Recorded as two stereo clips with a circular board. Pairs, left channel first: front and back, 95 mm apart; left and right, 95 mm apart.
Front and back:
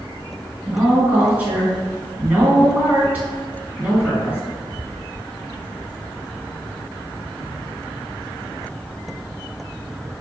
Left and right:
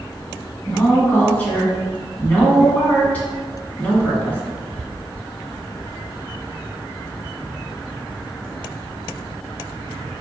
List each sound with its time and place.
0.7 s a woman speaking: 135° left, 1.5 m